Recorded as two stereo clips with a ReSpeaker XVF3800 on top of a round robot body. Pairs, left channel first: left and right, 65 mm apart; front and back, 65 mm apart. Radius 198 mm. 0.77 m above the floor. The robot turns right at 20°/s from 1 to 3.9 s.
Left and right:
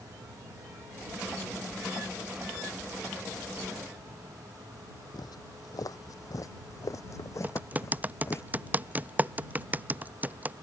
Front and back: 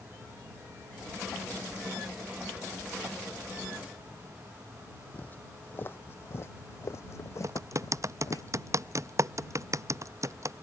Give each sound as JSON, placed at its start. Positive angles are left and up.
{"t": 5.1, "sound": "footsteps", "azimuth_deg": 70}
{"t": 7.4, "sound": "typing on a keyboard", "azimuth_deg": -150}